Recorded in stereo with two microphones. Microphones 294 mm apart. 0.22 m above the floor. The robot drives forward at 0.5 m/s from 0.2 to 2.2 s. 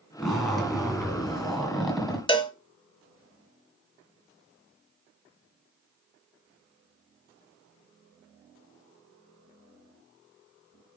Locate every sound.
0.2 s a zipper: centre (ahead or behind), 2.5 m
2.3 s a cowbell: 15° left (ahead or behind), 0.6 m